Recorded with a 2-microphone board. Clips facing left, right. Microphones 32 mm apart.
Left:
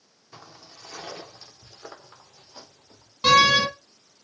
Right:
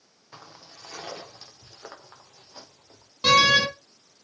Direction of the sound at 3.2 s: Centre (ahead or behind).